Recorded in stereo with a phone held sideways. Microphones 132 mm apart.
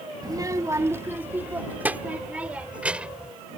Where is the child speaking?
30° right (ahead or behind); by 3.3 s 10° right (ahead or behind).